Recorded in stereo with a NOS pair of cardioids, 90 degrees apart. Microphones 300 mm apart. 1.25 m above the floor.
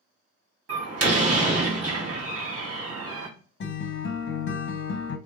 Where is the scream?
No scream in this recording.